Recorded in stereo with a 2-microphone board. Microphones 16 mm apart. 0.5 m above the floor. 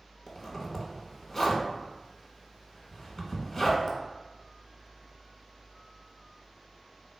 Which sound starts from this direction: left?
A zipper, at 0.3 s.